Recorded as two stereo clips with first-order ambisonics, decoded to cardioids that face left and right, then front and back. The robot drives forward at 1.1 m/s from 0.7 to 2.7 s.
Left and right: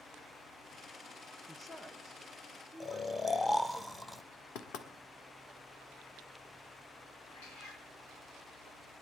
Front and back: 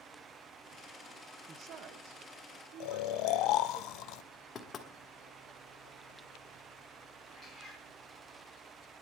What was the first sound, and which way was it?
A woman speaking, 160° left.